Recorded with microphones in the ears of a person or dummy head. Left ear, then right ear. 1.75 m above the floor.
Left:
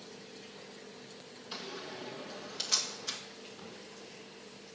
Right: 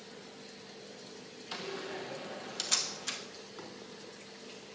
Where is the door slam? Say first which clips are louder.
Right 3 dB; 20° right (ahead or behind), 1.3 m.